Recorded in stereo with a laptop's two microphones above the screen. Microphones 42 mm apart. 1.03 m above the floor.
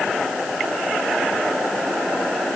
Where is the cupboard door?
No cupboard door in this recording.